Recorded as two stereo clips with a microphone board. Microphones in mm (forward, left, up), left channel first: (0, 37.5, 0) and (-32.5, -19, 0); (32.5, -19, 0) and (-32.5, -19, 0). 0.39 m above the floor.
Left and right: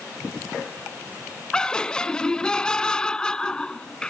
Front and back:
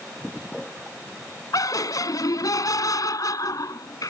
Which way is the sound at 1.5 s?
15° right.